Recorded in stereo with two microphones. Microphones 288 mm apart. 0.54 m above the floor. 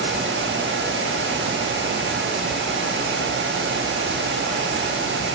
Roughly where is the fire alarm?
I don't hear a fire alarm.